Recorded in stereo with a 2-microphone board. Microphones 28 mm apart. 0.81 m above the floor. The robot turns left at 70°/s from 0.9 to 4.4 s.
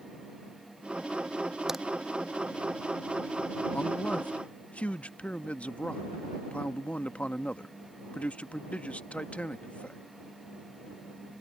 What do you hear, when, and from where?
1.7 s a crack: 15° right (ahead or behind); by 1.8 s 5° right (ahead or behind)
3.7 s a man speaking: 110° left; by 10.0 s 65° left